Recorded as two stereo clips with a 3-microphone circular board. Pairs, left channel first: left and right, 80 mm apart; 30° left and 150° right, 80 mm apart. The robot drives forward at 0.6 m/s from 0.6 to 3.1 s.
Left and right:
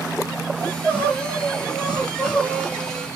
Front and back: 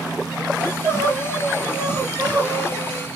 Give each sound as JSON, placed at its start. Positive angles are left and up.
{"t": 0.6, "sound": "crying", "azimuth_deg": -160, "distance_m": 3.0}